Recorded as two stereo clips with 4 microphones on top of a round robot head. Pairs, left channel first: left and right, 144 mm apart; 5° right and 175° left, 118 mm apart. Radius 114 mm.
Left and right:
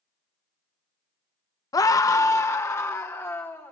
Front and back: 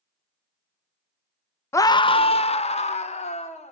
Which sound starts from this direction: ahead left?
A scream, at 1.7 s.